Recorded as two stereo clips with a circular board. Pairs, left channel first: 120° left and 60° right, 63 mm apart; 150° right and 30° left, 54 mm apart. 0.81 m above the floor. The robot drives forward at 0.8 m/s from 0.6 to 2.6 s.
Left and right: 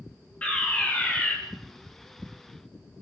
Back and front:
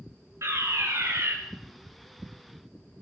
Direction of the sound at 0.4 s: 50° left.